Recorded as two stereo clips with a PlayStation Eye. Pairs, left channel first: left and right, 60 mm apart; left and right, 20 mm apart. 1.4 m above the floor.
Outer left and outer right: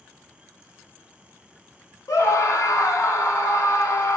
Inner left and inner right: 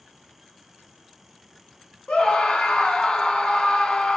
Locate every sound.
2.1 s a scream: 55° left (ahead or behind), 1.2 m